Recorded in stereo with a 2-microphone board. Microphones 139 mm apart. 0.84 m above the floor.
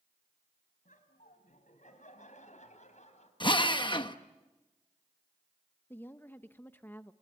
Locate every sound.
0.8 s laughter: 70° left (ahead or behind), 5.5 m; by 3.3 s 55° left (ahead or behind), 5 m
3.4 s a drill: 35° left (ahead or behind), 1.1 m
5.9 s a woman speaking: 15° left (ahead or behind), 0.8 m